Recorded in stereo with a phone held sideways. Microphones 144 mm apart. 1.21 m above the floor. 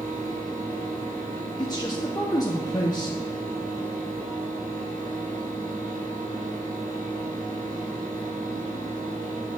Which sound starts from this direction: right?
A fan, at 0.0 s.